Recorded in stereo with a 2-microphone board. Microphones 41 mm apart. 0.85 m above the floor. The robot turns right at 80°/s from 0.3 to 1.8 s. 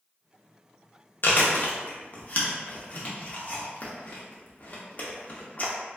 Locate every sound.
1.2 s chewing: 60° left (ahead or behind), 0.5 m; by 5.7 s 35° left (ahead or behind), 0.5 m